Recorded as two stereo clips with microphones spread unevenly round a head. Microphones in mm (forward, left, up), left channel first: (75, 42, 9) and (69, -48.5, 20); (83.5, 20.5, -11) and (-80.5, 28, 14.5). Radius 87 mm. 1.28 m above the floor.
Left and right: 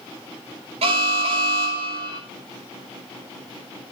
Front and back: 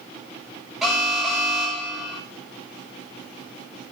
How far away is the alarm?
About 7.5 m.